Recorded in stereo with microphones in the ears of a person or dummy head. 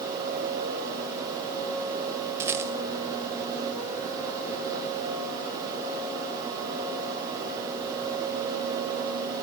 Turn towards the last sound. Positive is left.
turn(degrees=-15)  # may be behind; listen again after turning